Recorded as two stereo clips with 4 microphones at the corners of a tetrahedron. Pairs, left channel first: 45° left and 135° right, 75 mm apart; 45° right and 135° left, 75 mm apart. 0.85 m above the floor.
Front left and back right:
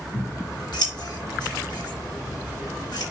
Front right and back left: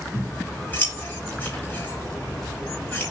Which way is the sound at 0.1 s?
25° left.